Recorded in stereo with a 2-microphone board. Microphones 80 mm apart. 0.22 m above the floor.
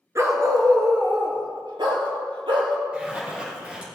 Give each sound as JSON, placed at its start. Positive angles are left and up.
{"t": 0.1, "sound": "a dog barking", "side_deg": -35, "distance_m": 1.4}
{"t": 2.9, "sound": "a zipper", "side_deg": -15, "distance_m": 3.5}